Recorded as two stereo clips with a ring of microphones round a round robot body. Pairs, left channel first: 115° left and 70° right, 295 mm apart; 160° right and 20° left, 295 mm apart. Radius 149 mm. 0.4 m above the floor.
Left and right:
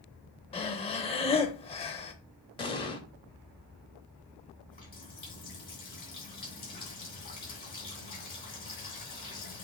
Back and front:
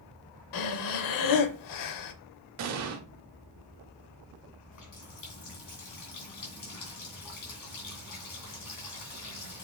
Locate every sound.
0.5 s breathing: 175° right, 0.6 m
2.6 s an explosion: 40° left, 0.8 m
4.7 s a running tap: 175° left, 2.5 m